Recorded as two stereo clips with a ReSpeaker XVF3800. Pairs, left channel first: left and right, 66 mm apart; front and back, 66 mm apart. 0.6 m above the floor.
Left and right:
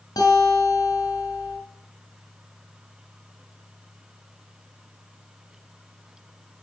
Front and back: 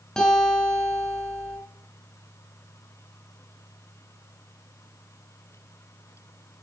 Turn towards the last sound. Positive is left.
turn(degrees=80)